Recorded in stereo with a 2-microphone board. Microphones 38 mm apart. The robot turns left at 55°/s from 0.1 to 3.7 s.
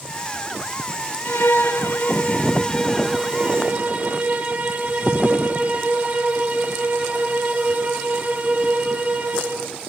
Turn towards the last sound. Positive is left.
turn(degrees=-40)